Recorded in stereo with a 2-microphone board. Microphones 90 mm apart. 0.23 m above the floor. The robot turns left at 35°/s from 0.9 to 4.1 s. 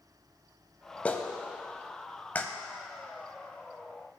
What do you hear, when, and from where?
1.1 s a clap: 15° left (ahead or behind), 0.7 m